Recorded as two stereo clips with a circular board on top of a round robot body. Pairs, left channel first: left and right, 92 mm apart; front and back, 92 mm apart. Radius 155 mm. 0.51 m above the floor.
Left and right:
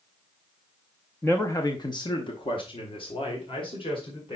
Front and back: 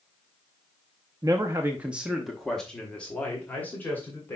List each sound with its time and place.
1.2 s a man speaking: 150° left, 1.0 m; by 4.4 s 65° left, 3 m